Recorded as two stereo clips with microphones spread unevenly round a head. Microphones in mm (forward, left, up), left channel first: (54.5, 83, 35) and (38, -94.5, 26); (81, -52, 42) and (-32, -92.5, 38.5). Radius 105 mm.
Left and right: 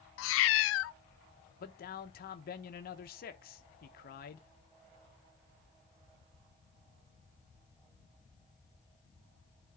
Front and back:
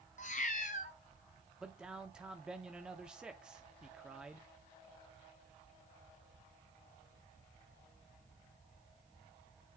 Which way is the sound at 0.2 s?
75° left.